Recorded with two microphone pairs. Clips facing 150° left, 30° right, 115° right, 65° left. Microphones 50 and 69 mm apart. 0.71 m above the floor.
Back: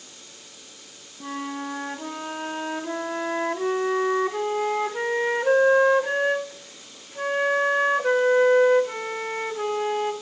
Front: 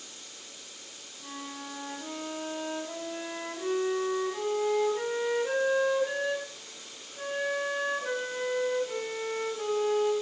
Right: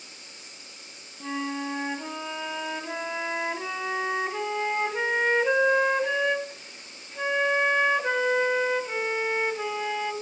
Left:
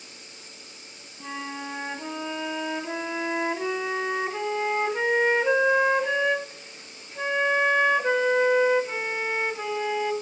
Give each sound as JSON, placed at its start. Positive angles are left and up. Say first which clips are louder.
{"t": 1.2, "sound": "a flute", "louder": "back 10 dB, right 4 dB", "azimuth_deg": 150, "distance_m": 0.7}